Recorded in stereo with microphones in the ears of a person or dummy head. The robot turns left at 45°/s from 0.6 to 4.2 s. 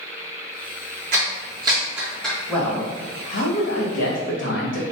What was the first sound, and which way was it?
A clap, 50° right (ahead or behind).